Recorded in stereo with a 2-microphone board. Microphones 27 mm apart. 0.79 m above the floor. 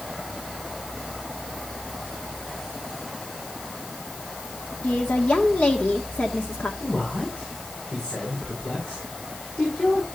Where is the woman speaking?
65° left (ahead or behind), 1.4 m.